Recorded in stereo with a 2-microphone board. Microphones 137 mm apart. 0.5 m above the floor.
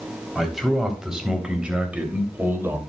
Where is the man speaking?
Centre (ahead or behind), 3.5 m; by 2.8 s 20° right (ahead or behind), 2.5 m.